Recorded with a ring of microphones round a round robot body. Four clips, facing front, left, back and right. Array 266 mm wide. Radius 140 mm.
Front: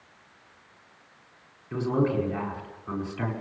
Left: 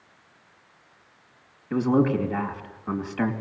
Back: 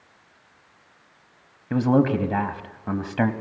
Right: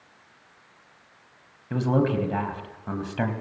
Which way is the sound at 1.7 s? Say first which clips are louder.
Left 2 dB, back 6 dB; 170° right.